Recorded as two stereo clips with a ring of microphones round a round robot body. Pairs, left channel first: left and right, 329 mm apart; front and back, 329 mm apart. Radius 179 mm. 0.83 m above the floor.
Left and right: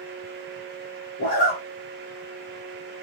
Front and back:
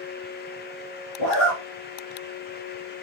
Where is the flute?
No flute in this recording.